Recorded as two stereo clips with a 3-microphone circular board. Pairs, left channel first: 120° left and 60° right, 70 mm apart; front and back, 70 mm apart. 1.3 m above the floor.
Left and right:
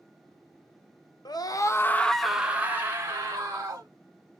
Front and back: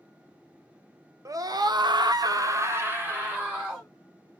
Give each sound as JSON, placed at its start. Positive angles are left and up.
{"t": 1.2, "sound": "a scream", "azimuth_deg": 140, "distance_m": 0.8}